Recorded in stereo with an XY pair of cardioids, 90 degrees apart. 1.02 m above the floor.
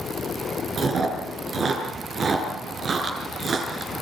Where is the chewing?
55° right, 5.5 m.